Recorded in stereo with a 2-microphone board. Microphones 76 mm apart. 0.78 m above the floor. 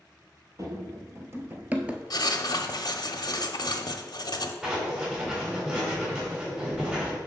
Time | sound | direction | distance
0.6 | running footsteps | 45° right (ahead or behind) | 1.0 m
2.1 | writing | 60° left (ahead or behind) | 0.6 m
4.6 | writing | 15° right (ahead or behind) | 3 m